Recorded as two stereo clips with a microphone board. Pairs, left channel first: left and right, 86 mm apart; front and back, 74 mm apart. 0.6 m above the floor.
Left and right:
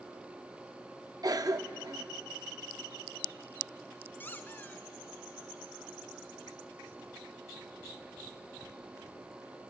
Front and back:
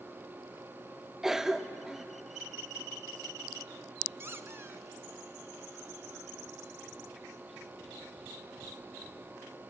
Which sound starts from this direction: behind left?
A squeak, at 4.2 s.